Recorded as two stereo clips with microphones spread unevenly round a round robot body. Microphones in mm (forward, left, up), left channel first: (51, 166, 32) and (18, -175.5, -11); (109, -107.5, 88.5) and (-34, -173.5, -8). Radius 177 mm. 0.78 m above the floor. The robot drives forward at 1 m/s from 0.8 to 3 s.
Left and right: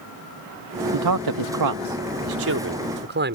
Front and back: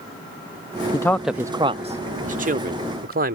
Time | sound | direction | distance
0.9 | a man speaking | 65° right | ?